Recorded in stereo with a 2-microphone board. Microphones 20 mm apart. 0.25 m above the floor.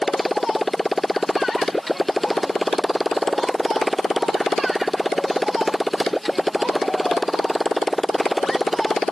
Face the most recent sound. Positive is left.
turn(degrees=10)  # may be behind; listen again after turning